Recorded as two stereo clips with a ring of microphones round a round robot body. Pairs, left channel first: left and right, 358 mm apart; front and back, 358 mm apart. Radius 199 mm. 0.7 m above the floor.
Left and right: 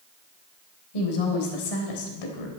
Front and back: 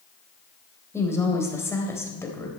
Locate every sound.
0.9 s a woman speaking: 85° left, 3.5 m